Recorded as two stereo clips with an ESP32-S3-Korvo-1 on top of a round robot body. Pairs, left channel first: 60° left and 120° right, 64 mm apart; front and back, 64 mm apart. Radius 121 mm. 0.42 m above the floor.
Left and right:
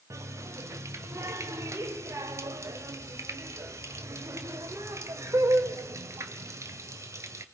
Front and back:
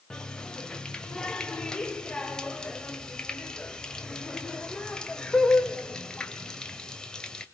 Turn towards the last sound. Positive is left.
turn(degrees=-80)